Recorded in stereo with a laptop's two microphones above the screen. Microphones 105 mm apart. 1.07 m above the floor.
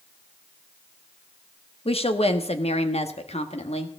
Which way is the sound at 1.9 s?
65° left (ahead or behind).